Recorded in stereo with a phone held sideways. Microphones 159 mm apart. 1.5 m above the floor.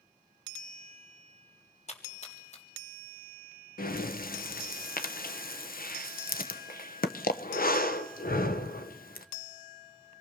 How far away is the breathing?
About 1.0 m.